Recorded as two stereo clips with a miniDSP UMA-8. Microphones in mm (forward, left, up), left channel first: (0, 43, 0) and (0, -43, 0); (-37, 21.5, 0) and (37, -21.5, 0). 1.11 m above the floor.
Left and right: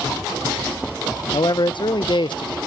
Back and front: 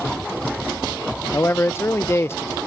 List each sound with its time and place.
1.3 s a man speaking: 90° left